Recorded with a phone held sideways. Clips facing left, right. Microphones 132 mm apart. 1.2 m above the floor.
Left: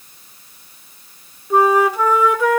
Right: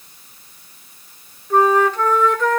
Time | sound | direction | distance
1.5 | a flute | 10° left (ahead or behind) | 1.1 m